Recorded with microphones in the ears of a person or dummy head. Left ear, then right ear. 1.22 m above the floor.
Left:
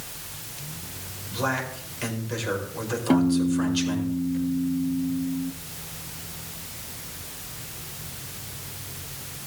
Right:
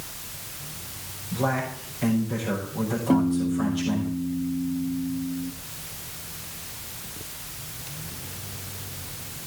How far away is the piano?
About 0.6 m.